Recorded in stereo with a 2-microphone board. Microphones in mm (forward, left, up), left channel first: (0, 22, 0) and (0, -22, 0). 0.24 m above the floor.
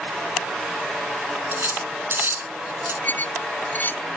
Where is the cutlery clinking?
60° right (ahead or behind).